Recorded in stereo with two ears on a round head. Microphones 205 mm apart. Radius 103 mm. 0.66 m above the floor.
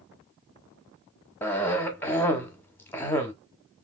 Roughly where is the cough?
Centre.